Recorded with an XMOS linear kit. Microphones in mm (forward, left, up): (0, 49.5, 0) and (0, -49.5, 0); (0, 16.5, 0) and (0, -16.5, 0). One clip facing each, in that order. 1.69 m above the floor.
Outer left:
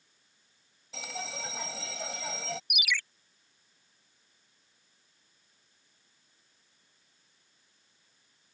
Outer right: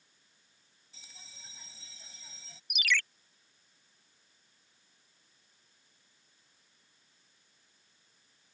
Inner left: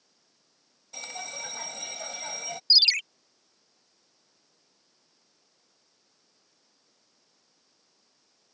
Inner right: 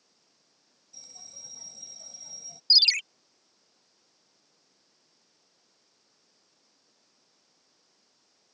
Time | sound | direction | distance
0.9 | a bell | 85° left | ?
2.7 | a ringtone | 10° left (ahead or behind) | ?